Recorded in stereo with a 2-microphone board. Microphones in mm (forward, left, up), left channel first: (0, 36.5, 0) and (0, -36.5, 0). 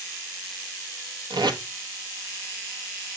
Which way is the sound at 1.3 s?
80° right.